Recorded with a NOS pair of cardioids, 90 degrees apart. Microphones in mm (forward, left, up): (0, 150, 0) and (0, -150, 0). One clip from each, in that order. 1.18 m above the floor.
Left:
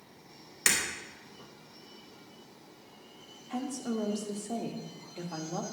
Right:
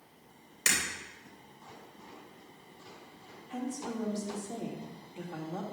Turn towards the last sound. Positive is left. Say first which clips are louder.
# left 3 dB
turn(degrees=25)